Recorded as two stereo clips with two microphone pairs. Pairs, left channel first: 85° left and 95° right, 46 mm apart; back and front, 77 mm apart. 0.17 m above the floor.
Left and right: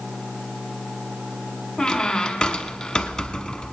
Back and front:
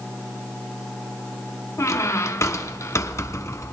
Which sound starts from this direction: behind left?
A squeak, at 1.8 s.